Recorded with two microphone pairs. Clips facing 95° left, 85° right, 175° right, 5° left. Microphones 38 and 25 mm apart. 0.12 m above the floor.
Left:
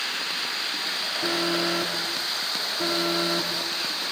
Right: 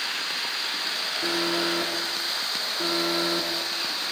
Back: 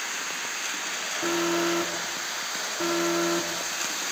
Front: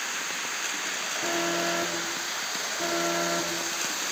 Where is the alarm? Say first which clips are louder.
Left 1 dB, back 3 dB; 155° right, 7.5 m.